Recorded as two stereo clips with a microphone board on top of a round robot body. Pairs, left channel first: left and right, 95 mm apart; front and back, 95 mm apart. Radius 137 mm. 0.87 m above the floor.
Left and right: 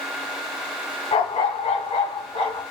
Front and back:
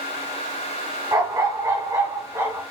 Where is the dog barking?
125° left, 2 m; by 2.6 s 120° left, 3 m.